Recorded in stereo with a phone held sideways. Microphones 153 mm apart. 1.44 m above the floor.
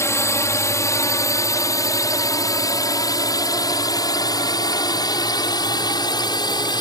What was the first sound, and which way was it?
A drone, 20° left (ahead or behind).